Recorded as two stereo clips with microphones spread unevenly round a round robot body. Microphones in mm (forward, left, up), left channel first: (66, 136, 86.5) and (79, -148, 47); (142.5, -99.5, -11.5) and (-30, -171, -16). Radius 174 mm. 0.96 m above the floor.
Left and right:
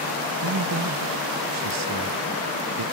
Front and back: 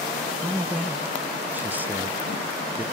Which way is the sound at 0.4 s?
75° right.